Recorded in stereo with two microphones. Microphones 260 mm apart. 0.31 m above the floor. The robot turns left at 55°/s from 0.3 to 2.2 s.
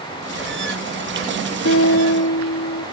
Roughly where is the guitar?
Left.